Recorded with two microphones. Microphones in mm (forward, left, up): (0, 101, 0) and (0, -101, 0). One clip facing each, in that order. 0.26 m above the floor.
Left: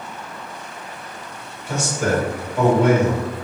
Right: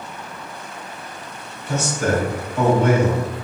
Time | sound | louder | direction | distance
1.7 | a man speaking | even | 15° left (ahead or behind) | 1.2 m